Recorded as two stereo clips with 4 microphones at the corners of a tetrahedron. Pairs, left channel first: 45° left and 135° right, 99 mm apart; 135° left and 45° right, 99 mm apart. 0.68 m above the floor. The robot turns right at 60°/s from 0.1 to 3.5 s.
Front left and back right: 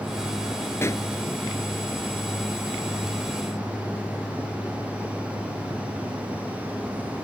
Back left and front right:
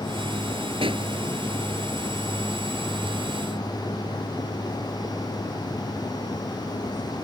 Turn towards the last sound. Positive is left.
turn(degrees=140)